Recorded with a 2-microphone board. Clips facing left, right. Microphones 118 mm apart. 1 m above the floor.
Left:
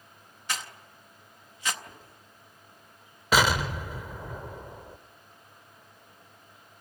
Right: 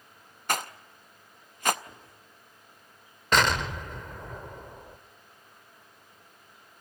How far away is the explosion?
About 0.9 m.